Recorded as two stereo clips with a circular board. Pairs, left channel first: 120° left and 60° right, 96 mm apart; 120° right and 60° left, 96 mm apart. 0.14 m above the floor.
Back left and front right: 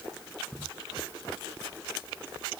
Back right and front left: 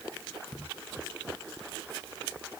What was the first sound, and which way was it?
Only background noise.